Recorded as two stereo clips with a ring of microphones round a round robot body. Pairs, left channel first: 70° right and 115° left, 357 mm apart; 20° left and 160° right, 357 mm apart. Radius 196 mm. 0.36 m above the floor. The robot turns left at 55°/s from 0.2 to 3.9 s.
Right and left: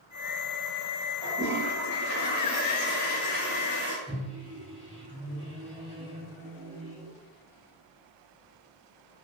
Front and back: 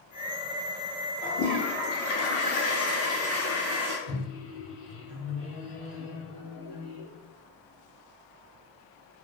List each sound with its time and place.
1.2 s a toilet flushing: 25° left, 1.3 m; by 4.0 s 120° right, 1.3 m
4.1 s a microwave: 170° right, 1.7 m